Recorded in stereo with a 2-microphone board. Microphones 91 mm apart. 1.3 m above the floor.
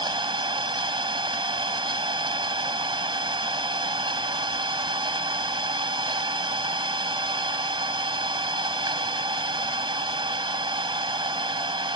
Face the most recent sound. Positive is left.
turn(degrees=-60)  # may be behind; listen again after turning